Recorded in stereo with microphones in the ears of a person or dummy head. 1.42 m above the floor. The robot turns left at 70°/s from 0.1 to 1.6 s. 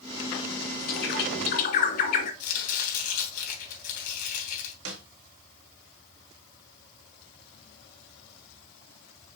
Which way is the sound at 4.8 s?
85° right.